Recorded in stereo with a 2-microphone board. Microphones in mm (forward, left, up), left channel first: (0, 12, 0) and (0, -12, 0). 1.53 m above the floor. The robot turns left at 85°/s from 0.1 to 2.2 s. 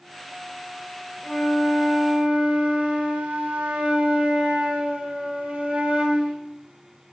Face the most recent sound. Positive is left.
turn(degrees=-75)